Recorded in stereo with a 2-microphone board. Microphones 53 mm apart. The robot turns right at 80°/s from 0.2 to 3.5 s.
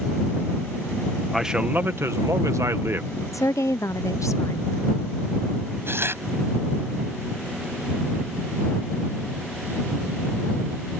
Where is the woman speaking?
80° left.